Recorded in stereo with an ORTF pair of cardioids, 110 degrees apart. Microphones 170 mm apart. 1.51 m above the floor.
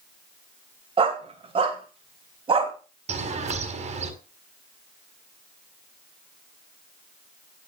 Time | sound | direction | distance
1.0 | a dog barking | 35° right | 3.5 m
3.1 | a bird | 40° right | 4.5 m